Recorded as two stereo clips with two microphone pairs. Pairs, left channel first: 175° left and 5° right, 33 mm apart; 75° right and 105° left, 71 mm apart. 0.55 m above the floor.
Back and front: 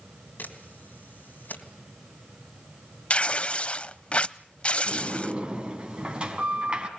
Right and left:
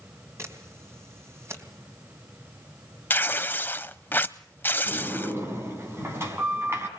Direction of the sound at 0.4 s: 155° left.